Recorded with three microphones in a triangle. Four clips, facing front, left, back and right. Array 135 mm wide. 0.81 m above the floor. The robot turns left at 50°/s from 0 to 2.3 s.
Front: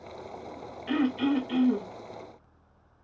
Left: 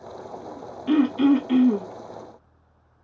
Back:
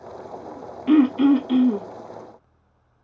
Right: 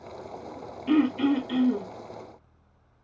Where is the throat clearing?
170° left, 0.7 m; by 1.9 s 120° left, 0.7 m.